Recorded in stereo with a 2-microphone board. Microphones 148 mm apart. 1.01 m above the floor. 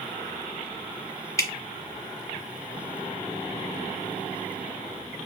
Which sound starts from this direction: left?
Dripping, at 1.4 s.